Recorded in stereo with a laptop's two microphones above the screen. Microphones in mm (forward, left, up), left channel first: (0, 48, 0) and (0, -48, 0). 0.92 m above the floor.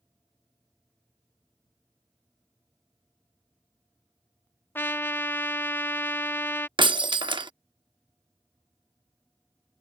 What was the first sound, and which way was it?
A trumpet, 25° left (ahead or behind).